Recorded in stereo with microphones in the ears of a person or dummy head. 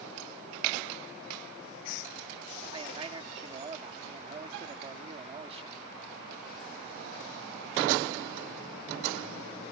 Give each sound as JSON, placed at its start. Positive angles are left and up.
{"t": 2.7, "sound": "a man speaking", "side_deg": -35}